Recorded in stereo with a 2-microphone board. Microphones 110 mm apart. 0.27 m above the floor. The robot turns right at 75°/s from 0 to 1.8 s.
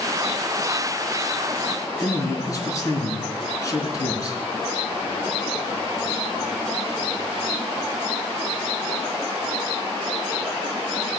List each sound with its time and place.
2.0 s a man speaking: 30° left (ahead or behind), 3.5 m